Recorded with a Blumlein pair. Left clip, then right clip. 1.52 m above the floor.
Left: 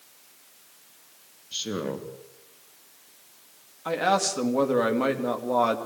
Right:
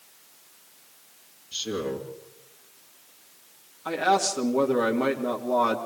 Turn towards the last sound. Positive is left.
turn(degrees=5)